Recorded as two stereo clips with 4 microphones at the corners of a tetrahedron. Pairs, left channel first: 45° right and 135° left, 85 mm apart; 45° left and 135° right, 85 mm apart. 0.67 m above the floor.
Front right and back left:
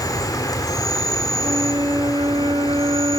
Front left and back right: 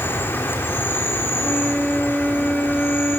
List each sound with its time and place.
0.0 s an insect: 15° right, 3 m
1.4 s a flute: 130° left, 2 m